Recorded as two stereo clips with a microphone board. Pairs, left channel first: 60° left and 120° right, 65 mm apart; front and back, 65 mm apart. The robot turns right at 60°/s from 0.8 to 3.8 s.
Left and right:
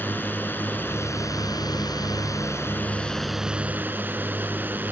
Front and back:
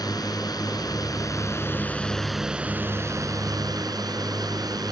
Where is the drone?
Straight ahead; by 4.9 s straight behind.